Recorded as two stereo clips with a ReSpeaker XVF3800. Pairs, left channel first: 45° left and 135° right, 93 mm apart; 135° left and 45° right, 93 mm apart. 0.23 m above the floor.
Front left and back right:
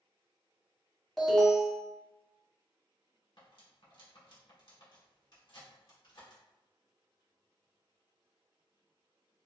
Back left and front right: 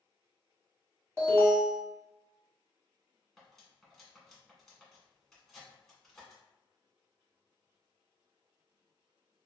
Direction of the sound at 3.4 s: 50° left.